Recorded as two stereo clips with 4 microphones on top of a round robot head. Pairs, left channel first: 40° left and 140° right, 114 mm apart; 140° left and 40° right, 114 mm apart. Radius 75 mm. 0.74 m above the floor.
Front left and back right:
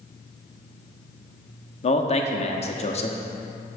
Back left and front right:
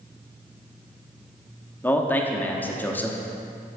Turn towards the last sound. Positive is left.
turn(degrees=65)